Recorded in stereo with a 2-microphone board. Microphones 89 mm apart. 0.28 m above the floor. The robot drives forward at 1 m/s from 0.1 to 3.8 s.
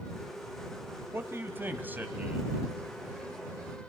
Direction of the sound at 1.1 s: 25° right (ahead or behind).